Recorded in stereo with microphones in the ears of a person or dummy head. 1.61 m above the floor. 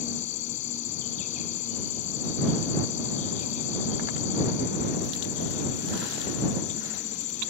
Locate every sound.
0.0 s an insect: 35° left (ahead or behind)